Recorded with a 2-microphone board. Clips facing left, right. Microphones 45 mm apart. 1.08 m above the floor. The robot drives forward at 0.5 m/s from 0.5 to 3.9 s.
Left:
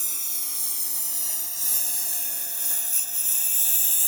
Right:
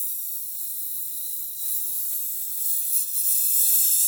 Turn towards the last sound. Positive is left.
turn(degrees=35)  # may be behind; listen again after turning